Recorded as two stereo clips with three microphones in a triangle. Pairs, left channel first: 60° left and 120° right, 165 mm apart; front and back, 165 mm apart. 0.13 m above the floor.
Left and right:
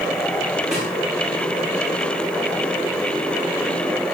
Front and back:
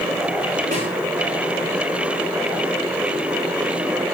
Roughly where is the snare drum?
Behind left.